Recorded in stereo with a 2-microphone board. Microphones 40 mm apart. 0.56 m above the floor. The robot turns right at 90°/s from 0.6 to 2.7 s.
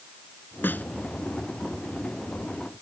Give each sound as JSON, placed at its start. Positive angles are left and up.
{"t": 0.6, "sound": "a snare drum", "side_deg": 60}